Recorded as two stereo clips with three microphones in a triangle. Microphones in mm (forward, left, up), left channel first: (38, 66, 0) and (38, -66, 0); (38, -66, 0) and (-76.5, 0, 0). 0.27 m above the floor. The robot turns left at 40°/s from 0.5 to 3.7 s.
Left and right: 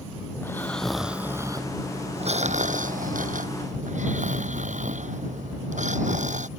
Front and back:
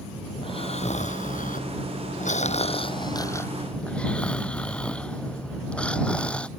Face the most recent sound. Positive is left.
turn(degrees=-110)